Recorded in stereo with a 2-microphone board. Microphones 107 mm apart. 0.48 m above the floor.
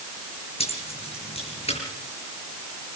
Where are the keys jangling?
70° left (ahead or behind), 5.5 m.